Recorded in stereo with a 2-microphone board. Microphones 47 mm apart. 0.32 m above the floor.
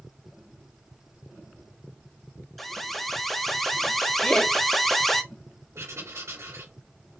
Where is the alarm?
5° left (ahead or behind), 0.9 m.